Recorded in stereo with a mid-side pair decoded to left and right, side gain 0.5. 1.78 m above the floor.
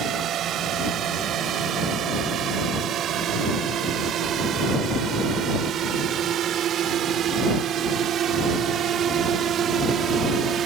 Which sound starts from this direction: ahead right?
A drone, at 0.0 s.